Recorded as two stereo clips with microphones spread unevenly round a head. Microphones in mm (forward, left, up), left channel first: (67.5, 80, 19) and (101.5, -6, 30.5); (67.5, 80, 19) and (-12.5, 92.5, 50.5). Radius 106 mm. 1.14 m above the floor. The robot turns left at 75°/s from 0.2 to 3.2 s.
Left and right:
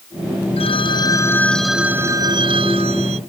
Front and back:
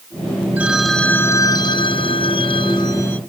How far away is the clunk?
No clunk in this recording.